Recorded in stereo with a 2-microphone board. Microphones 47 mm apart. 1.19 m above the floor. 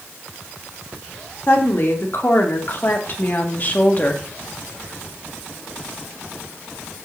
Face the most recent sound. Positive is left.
turn(degrees=30)  # may be behind; listen again after turning